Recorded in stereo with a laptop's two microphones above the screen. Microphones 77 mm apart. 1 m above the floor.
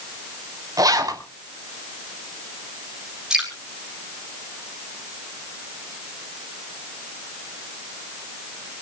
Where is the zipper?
50° right (ahead or behind), 4 m.